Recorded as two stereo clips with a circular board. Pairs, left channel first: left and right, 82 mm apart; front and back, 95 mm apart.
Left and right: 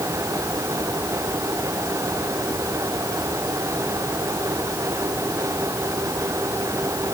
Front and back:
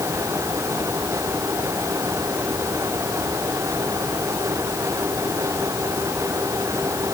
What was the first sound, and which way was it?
Only background noise.